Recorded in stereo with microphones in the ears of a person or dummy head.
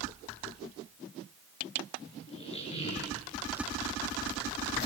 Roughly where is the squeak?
Left.